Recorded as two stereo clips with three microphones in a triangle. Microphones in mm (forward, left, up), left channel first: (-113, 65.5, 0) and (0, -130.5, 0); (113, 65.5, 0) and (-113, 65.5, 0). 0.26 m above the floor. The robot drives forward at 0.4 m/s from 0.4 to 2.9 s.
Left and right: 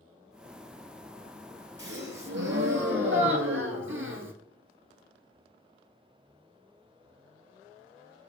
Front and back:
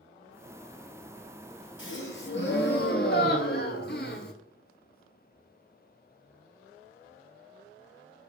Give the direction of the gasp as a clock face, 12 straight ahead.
1 o'clock.